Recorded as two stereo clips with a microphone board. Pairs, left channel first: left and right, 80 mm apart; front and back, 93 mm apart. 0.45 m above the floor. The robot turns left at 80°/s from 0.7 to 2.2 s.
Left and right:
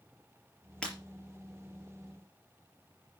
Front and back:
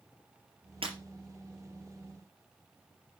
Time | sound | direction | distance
0.8 | breaking glass | 170° left | 4.5 m